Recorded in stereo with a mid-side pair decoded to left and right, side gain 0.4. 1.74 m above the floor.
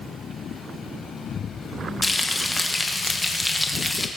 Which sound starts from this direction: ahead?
Frying, at 2.0 s.